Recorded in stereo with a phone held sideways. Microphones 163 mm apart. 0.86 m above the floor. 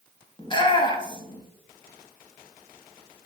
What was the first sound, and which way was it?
A shout, 30° left (ahead or behind).